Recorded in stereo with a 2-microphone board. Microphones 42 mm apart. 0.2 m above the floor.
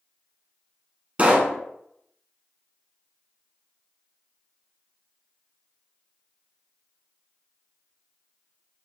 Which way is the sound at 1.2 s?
35° right (ahead or behind).